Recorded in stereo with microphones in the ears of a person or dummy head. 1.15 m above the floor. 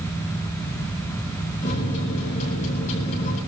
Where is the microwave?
40° left (ahead or behind), 8 m.